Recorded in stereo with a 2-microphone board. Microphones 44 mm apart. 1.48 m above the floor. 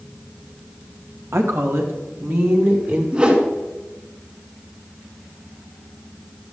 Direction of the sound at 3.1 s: 30° right (ahead or behind).